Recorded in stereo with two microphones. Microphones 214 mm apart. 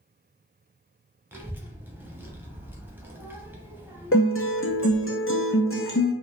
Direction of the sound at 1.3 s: 10° right (ahead or behind).